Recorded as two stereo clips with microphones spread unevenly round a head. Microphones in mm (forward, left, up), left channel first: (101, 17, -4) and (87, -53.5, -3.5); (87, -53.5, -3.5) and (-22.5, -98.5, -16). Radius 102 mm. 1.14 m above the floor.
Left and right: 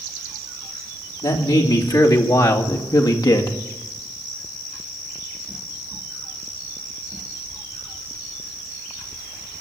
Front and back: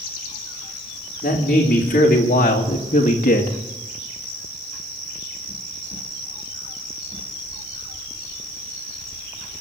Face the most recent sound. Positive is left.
turn(degrees=50)